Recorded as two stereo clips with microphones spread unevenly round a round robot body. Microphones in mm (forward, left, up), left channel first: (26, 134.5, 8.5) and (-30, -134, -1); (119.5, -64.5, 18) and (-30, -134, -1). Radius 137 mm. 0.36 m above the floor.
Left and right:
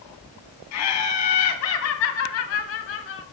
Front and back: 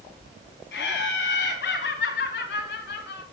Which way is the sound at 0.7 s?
50° left.